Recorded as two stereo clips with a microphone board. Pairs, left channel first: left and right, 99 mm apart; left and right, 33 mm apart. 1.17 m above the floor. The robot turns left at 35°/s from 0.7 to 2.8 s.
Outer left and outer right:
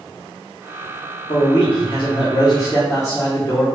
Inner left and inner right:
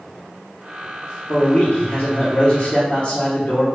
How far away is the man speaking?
About 0.8 m.